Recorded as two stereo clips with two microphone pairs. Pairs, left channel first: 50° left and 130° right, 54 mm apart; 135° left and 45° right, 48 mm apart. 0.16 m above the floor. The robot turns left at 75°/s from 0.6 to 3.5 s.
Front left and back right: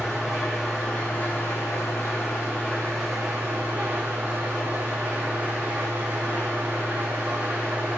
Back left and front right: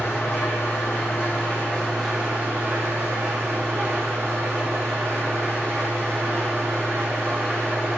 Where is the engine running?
145° left, 4.5 m; by 8.0 s 70° right, 4.5 m.